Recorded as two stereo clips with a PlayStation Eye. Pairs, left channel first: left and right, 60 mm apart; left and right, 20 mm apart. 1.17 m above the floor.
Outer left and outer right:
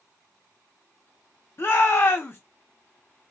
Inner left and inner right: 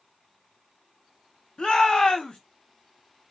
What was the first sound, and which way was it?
A shout, 45° left (ahead or behind).